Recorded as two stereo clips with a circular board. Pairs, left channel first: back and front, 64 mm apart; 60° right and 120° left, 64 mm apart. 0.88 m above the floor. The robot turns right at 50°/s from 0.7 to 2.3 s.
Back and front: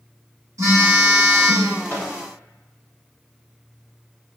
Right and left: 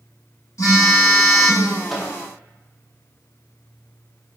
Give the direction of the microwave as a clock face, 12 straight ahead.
5 o'clock.